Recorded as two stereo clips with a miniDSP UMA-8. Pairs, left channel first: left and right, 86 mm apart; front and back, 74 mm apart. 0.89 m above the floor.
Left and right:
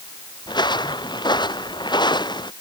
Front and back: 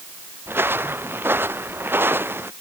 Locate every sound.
0.5 s footsteps: 120° left